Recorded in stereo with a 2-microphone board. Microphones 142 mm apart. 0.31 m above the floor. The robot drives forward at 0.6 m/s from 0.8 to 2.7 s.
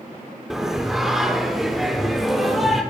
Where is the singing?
5° right (ahead or behind), 2.5 m; by 2.8 s centre (ahead or behind), 3.5 m.